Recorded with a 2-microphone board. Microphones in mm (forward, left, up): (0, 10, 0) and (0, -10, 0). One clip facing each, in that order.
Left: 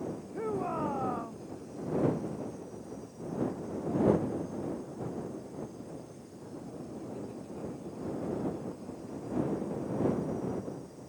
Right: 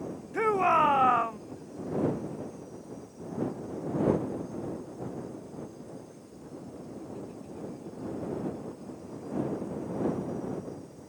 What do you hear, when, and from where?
0.3 s a shout: 70° right (ahead or behind)